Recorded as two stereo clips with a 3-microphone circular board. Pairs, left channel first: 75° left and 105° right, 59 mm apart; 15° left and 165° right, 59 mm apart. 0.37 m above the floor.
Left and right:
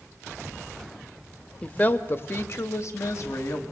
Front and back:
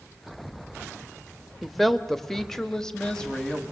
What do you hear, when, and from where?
1.6 s a woman speaking: 110° left, 1.0 m; by 3.6 s 95° left, 2.5 m